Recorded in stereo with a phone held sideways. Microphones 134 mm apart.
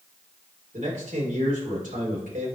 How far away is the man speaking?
About 3.5 m.